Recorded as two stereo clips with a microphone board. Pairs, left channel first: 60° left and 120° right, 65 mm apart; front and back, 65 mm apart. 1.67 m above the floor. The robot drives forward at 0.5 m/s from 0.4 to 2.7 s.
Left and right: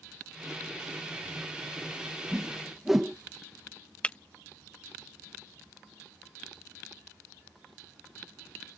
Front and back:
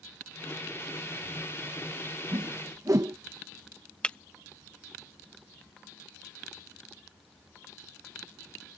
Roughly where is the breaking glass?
Ahead left.